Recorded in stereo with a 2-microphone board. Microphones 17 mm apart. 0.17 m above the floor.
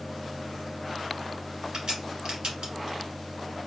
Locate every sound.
1.7 s a crack: 65° right (ahead or behind), 3 m